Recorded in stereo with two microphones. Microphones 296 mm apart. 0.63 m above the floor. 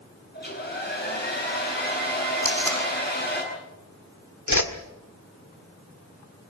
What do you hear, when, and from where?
0.3 s a hair dryer: 30° left (ahead or behind), 8 m
2.4 s tape being pulled: 60° right (ahead or behind), 5.5 m
4.5 s a whoosh: 65° left (ahead or behind), 1.9 m